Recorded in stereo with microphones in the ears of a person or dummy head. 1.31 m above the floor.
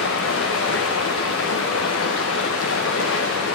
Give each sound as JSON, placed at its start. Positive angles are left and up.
{"t": 0.0, "sound": "running water", "side_deg": 70, "distance_m": 1.0}